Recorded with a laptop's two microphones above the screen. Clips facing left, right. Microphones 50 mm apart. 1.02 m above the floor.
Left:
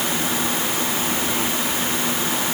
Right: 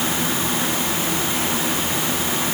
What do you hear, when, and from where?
Only background noise.